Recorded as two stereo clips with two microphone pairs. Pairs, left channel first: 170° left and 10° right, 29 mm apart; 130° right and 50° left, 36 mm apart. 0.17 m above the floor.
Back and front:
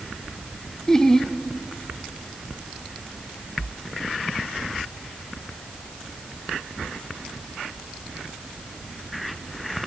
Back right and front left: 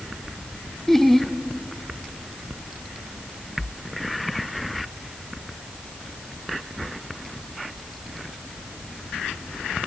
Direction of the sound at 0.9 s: 165° left.